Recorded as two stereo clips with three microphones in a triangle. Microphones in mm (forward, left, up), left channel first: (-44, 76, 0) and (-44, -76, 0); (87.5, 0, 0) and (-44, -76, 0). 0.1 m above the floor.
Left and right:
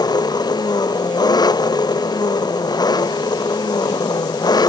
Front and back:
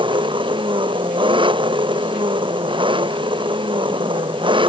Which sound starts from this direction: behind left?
An engine running, at 0.0 s.